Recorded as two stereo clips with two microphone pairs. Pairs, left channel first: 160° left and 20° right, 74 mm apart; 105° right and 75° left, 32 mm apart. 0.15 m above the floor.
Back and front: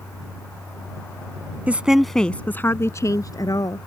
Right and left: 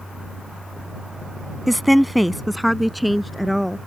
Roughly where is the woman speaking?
Ahead.